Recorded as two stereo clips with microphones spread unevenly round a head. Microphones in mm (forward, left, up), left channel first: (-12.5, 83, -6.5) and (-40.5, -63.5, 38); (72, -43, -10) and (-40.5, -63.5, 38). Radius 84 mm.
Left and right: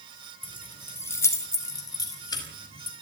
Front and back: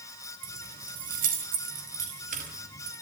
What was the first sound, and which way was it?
Keys jangling, 160° left.